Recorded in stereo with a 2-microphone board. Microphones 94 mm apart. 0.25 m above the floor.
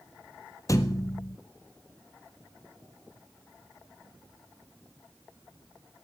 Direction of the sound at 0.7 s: 35° left (ahead or behind).